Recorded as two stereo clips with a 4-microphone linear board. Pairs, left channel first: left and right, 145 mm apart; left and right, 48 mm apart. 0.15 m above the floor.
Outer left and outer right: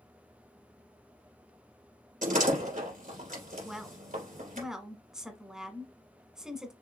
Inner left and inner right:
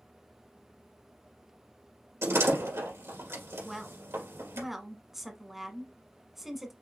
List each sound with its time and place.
2.2 s a door slam: 65° right (ahead or behind), 3 m
3.6 s a woman speaking: 5° right (ahead or behind), 1.1 m